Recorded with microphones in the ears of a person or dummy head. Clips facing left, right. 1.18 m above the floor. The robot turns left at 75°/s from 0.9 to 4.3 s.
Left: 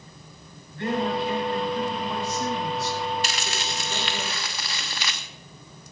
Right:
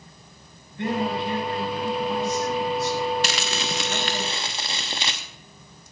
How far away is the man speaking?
About 6 m.